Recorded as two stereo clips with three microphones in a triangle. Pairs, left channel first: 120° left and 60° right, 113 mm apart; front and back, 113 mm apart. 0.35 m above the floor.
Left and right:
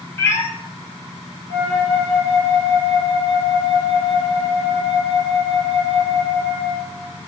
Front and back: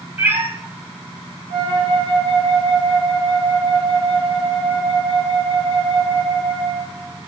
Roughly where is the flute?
Right.